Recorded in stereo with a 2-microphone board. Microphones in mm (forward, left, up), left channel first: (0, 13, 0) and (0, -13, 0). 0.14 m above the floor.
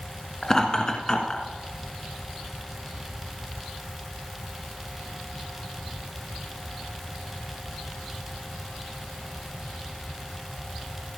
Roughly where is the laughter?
Left.